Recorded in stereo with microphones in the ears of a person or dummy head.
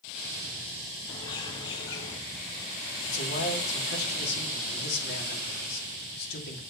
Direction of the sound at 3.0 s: 65° left (ahead or behind).